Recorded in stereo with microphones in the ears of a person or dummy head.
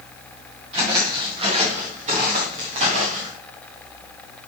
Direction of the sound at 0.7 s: 30° right (ahead or behind).